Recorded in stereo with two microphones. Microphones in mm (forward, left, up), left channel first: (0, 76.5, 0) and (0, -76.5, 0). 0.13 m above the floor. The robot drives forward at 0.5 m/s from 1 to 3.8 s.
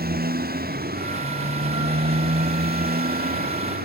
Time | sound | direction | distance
0.0 | a motorcycle | 80° right | ?